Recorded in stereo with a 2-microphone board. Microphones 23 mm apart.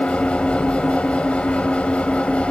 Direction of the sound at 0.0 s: 65° left (ahead or behind).